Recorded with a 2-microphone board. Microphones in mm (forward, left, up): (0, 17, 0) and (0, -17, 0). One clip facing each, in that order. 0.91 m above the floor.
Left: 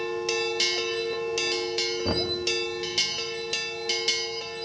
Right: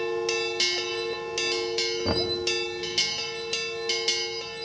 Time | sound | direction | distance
2.0 | knocking | 10° right (ahead or behind) | 1.0 m